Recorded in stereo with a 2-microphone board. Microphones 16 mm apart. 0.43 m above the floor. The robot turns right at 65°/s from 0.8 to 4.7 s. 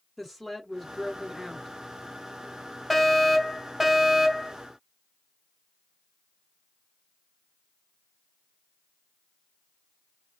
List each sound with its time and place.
0.2 s a woman speaking: 10° left (ahead or behind), 1.4 m; by 1.7 s 10° right (ahead or behind), 1.4 m
2.9 s a fire alarm: 5° left (ahead or behind), 1.8 m; by 4.5 s 20° right (ahead or behind), 1.8 m